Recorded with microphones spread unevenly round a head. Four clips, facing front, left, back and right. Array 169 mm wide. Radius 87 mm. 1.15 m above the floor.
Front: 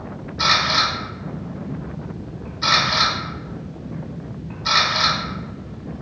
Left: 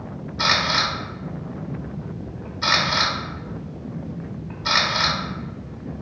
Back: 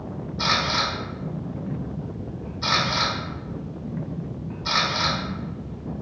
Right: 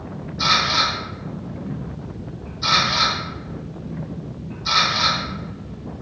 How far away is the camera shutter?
About 1.0 m.